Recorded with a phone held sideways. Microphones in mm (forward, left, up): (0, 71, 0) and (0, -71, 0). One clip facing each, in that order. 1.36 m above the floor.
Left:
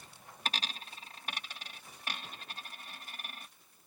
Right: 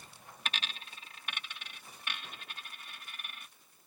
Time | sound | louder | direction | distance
0.5 | a dropped coin | left 3 dB | 35° left (ahead or behind) | ?